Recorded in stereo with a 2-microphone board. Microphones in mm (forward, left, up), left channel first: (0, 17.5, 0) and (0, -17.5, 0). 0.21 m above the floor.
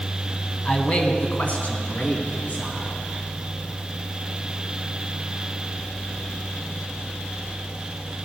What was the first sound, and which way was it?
A man speaking, 30° left (ahead or behind).